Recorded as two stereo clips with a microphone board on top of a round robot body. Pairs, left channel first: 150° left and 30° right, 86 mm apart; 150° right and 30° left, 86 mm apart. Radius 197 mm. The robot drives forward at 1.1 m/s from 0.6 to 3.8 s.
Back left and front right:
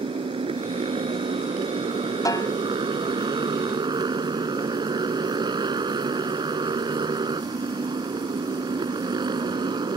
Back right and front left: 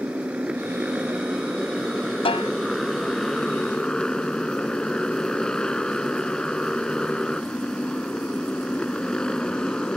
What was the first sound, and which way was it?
A motorcycle, 45° right.